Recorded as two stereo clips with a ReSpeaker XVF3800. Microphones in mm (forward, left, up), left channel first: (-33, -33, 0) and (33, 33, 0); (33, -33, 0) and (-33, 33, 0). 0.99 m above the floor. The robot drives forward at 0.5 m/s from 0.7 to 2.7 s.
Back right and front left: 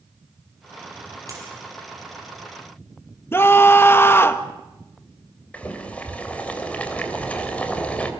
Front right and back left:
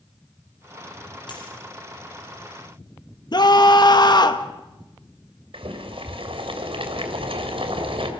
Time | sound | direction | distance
1.3 | a dropped coin | 10° right | 6.5 m
3.3 | a scream | 75° right | 1.6 m
5.5 | boiling | 150° left | 3 m